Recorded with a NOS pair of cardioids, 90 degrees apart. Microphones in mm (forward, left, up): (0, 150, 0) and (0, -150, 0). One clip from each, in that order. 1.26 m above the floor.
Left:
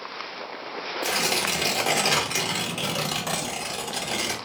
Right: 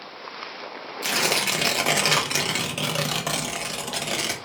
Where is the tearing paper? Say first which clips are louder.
Right 2 dB; 30° right, 1.1 m.